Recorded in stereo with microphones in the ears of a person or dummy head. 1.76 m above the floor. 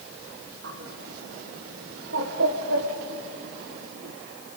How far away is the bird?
About 1.8 m.